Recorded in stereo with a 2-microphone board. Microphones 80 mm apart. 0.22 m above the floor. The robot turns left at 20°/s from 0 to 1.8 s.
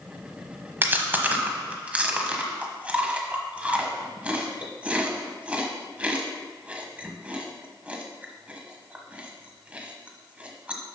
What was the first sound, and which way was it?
Chewing, 25° right (ahead or behind).